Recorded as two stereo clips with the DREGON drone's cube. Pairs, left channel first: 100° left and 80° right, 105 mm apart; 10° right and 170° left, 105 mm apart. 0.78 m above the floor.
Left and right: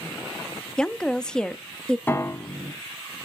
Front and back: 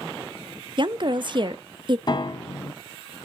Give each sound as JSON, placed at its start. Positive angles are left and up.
{"t": 0.8, "sound": "a woman speaking", "azimuth_deg": 180, "distance_m": 0.6}
{"t": 2.1, "sound": "a piano", "azimuth_deg": 30, "distance_m": 1.3}